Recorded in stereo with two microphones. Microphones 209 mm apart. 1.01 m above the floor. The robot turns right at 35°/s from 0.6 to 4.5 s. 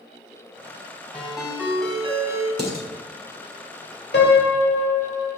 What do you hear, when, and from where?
1.1 s a ringtone: 175° left, 2.5 m; by 2.5 s 140° right, 2.5 m
2.6 s dishes clattering: 55° right (ahead or behind), 2.0 m; by 2.9 s 45° right (ahead or behind), 2.0 m
4.1 s a piano: 60° left (ahead or behind), 1.4 m; by 5.4 s 70° left (ahead or behind), 1.4 m